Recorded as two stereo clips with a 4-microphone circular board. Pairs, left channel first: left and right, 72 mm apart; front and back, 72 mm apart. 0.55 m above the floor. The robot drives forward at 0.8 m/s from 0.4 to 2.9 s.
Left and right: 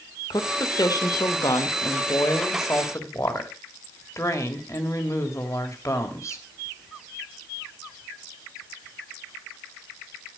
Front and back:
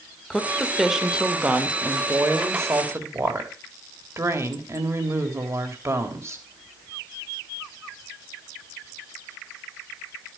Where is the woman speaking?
85° left, 2 m; by 6.4 s 135° left, 3 m.